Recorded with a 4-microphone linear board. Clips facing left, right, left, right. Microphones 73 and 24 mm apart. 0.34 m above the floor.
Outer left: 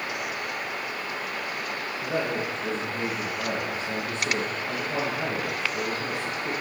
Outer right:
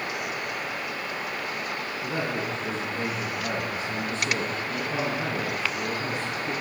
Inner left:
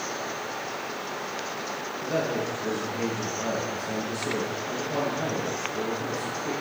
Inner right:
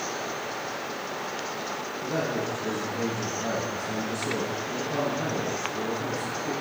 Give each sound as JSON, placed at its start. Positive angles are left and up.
{"t": 2.0, "sound": "a man speaking", "side_deg": 50, "distance_m": 4.5}